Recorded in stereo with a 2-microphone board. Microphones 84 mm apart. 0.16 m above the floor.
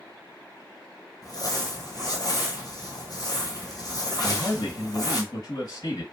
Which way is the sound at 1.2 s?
50° left (ahead or behind).